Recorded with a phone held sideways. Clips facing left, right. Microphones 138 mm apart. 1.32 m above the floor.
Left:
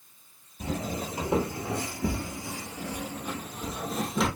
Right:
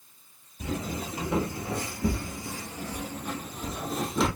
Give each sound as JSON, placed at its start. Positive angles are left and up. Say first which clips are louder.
{"t": 0.6, "sound": "footsteps", "louder": "left 1 dB", "side_deg": 30, "distance_m": 1.6}